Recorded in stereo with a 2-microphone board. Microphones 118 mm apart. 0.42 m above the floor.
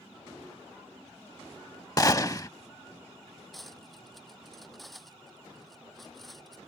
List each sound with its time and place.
2.0 s a gunshot: 30° left (ahead or behind)
3.5 s cutlery clinking: centre (ahead or behind)